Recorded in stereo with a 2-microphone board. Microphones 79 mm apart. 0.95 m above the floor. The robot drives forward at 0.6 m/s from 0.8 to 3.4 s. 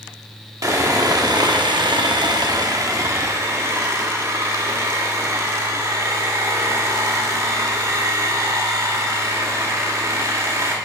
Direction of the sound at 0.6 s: 45° right (ahead or behind).